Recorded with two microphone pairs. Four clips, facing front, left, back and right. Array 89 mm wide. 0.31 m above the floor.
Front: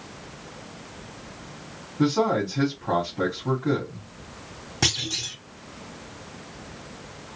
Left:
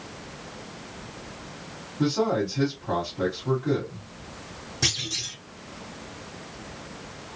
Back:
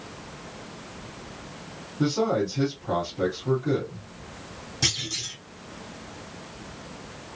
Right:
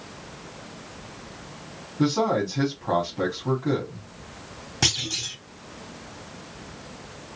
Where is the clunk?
40° right, 3 m.